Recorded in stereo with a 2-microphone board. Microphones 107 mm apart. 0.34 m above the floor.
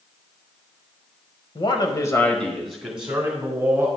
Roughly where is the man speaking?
Left.